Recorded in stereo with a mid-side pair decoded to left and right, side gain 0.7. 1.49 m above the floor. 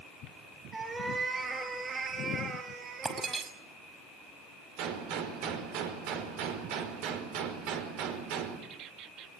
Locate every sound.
0.7 s a cat meowing: 15° right, 4.5 m; by 3.5 s 50° right, 4.5 m
3.0 s breaking glass: 25° right, 6 m
4.8 s a gunshot: 70° right, 5 m